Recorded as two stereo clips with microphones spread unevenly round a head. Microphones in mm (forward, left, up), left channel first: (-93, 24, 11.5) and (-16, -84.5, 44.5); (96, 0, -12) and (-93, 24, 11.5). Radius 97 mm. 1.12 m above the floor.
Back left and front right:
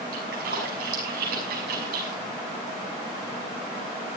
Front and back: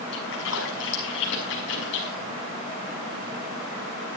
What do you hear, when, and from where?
0.1 s a splash: 40° right, 6 m